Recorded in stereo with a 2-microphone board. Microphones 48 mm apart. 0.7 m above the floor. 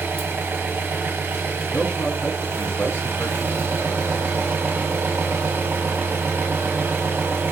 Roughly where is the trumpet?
No trumpet in this recording.